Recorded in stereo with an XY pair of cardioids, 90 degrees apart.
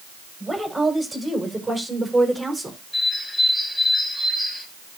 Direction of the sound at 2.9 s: 10° left.